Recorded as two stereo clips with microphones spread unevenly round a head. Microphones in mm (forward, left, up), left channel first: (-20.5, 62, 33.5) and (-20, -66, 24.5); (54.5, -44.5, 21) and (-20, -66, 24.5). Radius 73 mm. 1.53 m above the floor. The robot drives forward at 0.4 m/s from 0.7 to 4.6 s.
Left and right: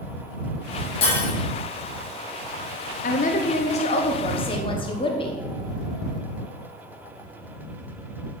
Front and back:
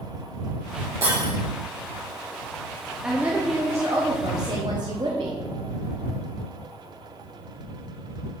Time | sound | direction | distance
1.0 | breaking glass | 125° left | 3.5 m
3.0 | a woman speaking | 110° left | 0.8 m